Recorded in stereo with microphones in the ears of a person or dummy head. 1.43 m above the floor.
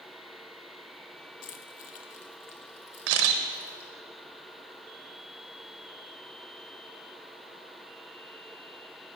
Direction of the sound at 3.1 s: 60° right (ahead or behind).